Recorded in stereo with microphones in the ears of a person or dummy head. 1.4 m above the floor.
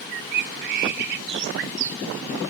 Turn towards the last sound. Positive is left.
turn(degrees=-65)  # may be behind; listen again after turning